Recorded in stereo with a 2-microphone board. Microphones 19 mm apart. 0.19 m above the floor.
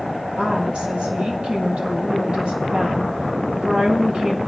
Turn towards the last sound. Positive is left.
turn(degrees=-55)  # may be behind; listen again after turning